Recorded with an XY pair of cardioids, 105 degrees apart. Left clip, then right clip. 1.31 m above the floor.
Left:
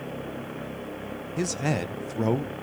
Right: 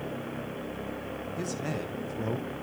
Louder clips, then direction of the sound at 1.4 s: Left 8 dB; 55° left.